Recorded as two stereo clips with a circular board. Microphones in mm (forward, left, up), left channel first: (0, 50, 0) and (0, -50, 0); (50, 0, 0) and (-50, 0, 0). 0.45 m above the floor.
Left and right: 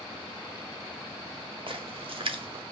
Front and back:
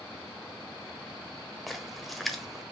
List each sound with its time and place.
1.7 s a splash: 90° right, 1.0 m